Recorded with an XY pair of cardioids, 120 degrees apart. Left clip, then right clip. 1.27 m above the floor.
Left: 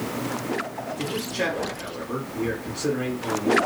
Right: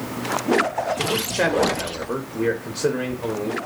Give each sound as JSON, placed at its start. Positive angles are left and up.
{"t": 1.0, "sound": "a man speaking", "azimuth_deg": -60, "distance_m": 0.8}